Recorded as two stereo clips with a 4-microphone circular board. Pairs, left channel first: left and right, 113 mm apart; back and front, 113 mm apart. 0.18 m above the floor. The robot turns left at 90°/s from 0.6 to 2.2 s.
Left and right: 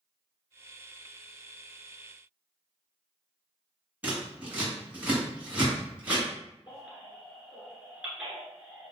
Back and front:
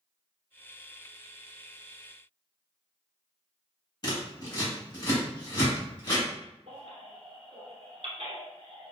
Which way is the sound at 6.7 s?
15° right.